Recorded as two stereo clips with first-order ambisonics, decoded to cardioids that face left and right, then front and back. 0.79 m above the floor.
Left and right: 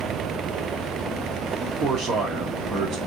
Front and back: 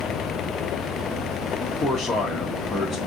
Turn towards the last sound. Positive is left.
turn(degrees=-85)